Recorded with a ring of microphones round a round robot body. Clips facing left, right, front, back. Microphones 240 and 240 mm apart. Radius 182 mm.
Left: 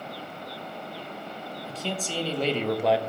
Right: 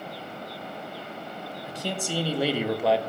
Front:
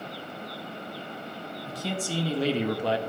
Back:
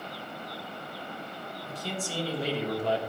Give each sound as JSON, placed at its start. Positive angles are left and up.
{"t": 1.6, "sound": "a man speaking", "azimuth_deg": -15, "distance_m": 1.6}